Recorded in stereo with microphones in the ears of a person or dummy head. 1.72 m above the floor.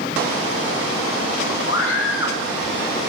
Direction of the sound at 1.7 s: 75° left (ahead or behind).